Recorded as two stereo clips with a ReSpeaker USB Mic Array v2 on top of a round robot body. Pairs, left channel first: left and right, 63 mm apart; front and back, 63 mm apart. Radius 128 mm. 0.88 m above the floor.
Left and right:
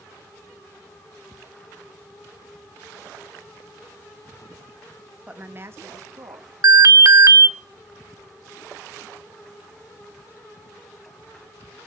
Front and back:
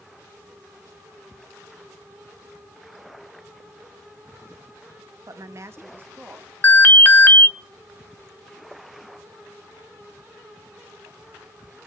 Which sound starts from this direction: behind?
A woman speaking, at 5.3 s.